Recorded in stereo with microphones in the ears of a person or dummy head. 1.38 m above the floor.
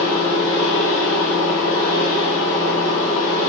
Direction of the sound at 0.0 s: 50° left (ahead or behind).